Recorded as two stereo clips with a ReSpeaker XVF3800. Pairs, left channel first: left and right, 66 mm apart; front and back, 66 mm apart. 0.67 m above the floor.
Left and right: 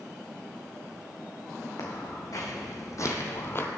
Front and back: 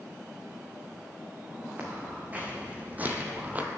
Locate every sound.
1.8 s footsteps: 115° left, 2.5 m; by 3.7 s 125° left, 0.8 m